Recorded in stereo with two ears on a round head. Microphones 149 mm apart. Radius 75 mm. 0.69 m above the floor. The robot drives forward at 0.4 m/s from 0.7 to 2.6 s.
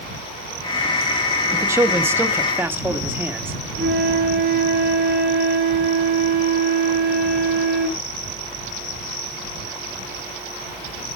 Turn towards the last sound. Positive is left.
turn(degrees=-65)  # may be behind; listen again after turning